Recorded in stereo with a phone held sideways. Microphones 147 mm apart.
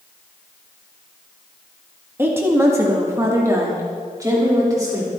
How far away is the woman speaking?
About 1.5 m.